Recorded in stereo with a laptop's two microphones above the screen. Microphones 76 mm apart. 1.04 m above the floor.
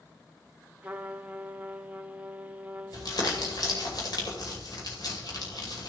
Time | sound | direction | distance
0.8 | a trumpet | 20° right (ahead or behind) | 0.7 m
2.9 | crumpling | 60° left (ahead or behind) | 2.5 m